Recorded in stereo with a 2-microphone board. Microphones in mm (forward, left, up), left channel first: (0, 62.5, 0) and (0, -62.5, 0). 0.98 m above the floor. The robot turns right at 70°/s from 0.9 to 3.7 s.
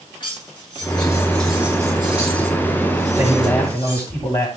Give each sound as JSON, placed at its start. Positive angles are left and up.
{"t": 0.2, "sound": "cutlery clinking", "azimuth_deg": 140, "distance_m": 9.5}
{"t": 3.2, "sound": "a man speaking", "azimuth_deg": -20, "distance_m": 6.5}